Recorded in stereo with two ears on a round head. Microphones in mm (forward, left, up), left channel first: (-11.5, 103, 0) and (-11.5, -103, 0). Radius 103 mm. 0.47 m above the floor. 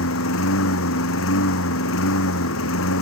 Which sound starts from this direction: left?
A lawn mower, at 0.0 s.